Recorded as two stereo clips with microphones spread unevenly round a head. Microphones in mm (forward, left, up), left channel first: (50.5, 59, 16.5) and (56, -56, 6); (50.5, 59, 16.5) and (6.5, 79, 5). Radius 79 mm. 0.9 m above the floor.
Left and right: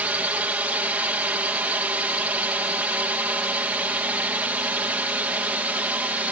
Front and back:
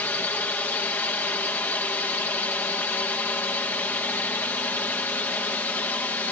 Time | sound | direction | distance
0.0 | a drone | 30° right | ?